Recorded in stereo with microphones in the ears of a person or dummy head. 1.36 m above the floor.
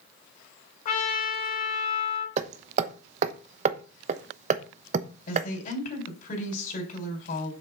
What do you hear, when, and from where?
0.8 s a trumpet: 45° left (ahead or behind), 4 m
2.4 s hammering: 40° right (ahead or behind), 1.0 m
5.3 s a woman speaking: 45° left (ahead or behind), 4 m